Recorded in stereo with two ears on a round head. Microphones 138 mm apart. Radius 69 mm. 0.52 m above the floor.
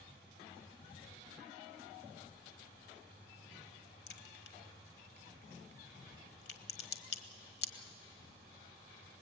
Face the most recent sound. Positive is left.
turn(degrees=80)